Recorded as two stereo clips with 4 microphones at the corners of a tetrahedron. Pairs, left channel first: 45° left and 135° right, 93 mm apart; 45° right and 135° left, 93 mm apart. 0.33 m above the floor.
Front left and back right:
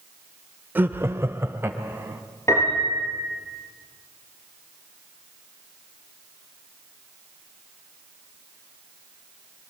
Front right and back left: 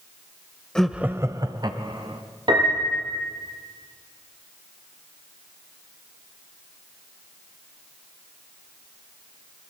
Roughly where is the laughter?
Right.